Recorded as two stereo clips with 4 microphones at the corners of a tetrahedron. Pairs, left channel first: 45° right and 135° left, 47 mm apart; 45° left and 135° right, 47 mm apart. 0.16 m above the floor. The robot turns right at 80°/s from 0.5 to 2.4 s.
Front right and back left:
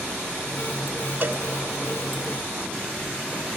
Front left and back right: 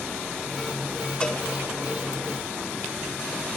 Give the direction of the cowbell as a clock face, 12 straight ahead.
8 o'clock.